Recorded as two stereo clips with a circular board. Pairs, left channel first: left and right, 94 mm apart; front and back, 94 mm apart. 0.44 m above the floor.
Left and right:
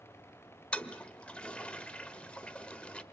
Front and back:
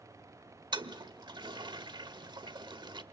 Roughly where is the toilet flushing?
Behind.